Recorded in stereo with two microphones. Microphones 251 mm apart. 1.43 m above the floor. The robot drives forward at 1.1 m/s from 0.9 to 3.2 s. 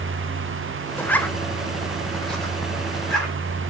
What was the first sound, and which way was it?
A zipper, 5° left (ahead or behind).